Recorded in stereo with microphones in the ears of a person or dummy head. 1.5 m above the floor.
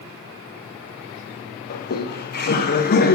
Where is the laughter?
50° left (ahead or behind), 1.0 m.